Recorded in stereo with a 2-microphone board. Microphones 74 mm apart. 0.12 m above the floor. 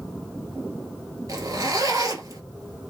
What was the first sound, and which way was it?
A zipper, 55° right (ahead or behind).